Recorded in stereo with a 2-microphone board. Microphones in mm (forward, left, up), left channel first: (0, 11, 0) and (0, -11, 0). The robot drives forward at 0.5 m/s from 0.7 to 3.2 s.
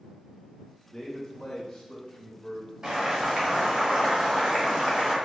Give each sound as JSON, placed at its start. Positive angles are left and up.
{"t": 0.9, "sound": "a man speaking", "side_deg": 25, "distance_m": 1.2}
{"t": 2.8, "sound": "boiling", "side_deg": -30, "distance_m": 1.2}